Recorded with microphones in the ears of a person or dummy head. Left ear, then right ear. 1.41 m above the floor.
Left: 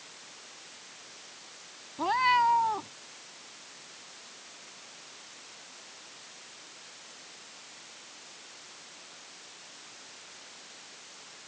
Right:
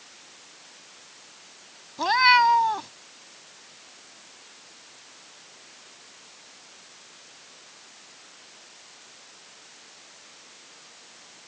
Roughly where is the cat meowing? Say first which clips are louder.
Right 7 dB; right.